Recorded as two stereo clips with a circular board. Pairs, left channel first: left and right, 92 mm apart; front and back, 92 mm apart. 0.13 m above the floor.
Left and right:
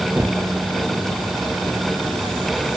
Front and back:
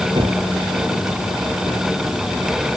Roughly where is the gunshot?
Behind.